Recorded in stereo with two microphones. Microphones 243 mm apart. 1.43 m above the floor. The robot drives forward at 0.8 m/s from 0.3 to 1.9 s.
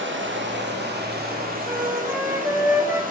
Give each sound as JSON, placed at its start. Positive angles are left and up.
{"t": 0.0, "sound": "running water", "side_deg": -50, "distance_m": 2.5}
{"t": 1.6, "sound": "a flute", "side_deg": -10, "distance_m": 1.8}